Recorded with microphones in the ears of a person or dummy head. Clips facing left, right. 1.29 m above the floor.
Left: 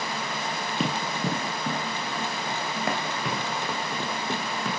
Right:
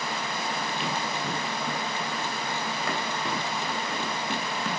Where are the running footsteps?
40° left (ahead or behind), 3.5 m; by 4.7 s 60° left (ahead or behind), 2.5 m.